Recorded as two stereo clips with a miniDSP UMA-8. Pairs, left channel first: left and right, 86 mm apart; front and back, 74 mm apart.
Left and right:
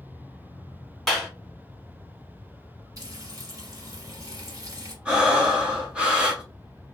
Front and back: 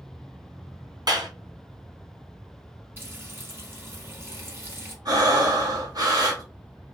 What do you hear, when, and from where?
1.1 s a clap: 175° left, 1.8 m
3.0 s frying: 125° right, 1.2 m
5.0 s breathing: 165° right, 1.2 m